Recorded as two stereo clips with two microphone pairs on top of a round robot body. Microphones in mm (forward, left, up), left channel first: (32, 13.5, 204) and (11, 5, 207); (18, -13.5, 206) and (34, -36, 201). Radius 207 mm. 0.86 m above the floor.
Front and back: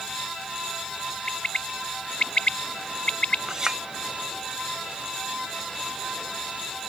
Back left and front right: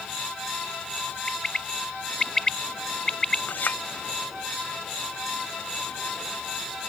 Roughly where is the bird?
Ahead left.